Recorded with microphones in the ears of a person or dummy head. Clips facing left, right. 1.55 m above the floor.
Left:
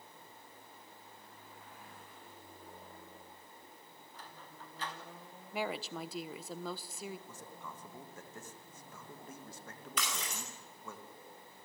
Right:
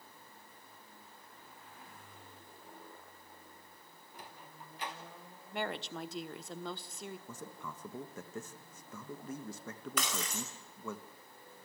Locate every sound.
4.1 s a sliding door: 15° right (ahead or behind), 0.9 m
5.5 s a woman speaking: 5° left (ahead or behind), 0.9 m
7.3 s a man speaking: 70° right (ahead or behind), 2 m
10.0 s breaking glass: 50° right (ahead or behind), 4.5 m